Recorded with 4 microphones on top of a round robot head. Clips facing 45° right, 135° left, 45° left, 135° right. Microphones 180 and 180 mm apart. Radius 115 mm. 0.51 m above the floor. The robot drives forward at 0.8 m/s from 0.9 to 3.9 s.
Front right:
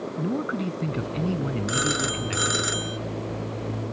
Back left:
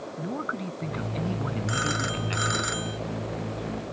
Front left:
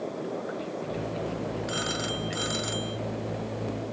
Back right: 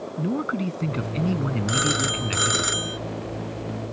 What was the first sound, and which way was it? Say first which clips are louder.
A man speaking: front right 6 dB, back right 7 dB; 110° right.